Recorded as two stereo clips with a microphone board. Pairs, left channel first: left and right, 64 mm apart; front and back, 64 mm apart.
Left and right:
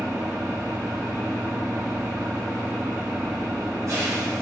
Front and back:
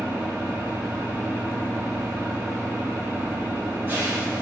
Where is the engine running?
120° right, 3.5 m.